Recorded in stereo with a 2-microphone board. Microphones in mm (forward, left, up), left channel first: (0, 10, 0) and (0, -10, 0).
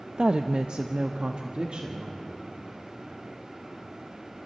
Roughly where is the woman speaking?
Right.